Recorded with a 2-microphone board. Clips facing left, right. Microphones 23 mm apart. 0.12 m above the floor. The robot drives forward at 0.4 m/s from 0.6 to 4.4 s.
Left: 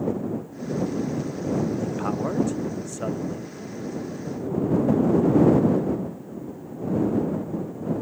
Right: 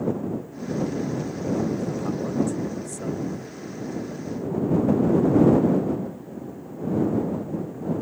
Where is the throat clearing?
No throat clearing in this recording.